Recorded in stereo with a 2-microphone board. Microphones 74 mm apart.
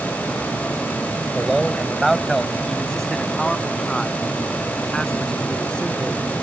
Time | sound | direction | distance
1.4 | a man speaking | 5° right (ahead or behind) | ?